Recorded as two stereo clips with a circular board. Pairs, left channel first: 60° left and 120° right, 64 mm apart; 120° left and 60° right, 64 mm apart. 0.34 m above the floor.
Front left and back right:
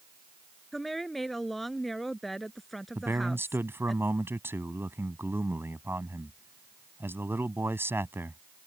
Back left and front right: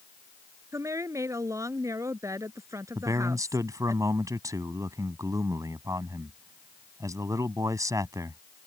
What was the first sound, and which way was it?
A woman speaking, 25° right.